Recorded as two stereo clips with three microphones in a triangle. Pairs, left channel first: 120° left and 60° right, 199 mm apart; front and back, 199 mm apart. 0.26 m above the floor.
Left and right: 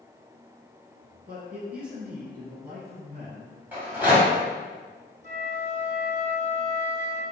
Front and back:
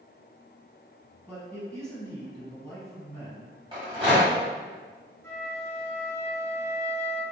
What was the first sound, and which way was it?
A man speaking, 80° right.